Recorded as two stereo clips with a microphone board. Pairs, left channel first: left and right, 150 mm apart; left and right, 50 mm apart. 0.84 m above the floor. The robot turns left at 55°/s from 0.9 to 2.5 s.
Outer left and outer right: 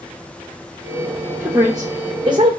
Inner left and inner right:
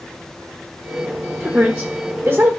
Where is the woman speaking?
25° right, 0.7 m; by 2.6 s 85° right, 0.7 m.